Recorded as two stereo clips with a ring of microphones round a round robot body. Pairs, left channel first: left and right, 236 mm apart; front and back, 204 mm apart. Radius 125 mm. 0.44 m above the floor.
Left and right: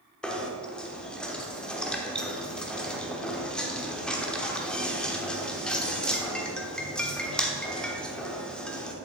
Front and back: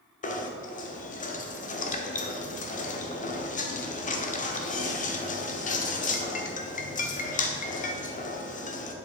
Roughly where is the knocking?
Ahead.